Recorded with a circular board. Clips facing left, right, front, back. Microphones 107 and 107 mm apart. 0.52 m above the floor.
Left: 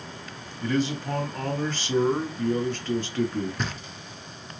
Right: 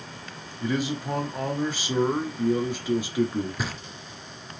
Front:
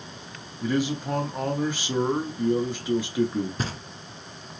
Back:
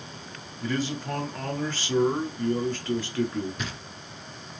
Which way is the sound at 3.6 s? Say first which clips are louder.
Even, front 4 dB; 10° right.